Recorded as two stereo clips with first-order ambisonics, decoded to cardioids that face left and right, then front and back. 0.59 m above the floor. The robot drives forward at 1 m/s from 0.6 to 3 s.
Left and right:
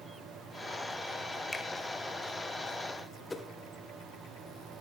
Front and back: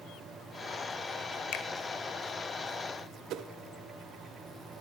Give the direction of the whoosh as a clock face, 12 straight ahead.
6 o'clock.